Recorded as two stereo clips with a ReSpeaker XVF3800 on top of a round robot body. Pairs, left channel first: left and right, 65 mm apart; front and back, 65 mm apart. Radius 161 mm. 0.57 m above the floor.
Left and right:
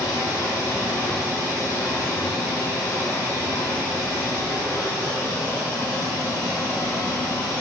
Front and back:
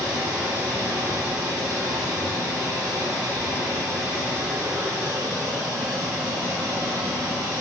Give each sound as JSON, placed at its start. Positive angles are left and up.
{"t": 0.0, "sound": "running water", "azimuth_deg": -145, "distance_m": 8.0}